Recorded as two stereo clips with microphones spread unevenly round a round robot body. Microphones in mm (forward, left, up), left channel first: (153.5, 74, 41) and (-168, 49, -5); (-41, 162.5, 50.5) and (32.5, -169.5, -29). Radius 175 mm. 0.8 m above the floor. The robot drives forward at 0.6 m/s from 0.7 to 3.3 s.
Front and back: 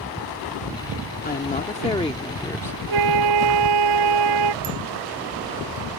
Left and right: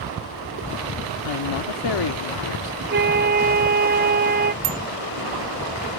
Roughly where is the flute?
Behind right.